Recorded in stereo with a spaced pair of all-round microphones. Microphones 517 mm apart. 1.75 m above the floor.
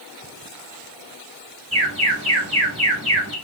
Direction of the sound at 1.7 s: 10° right (ahead or behind).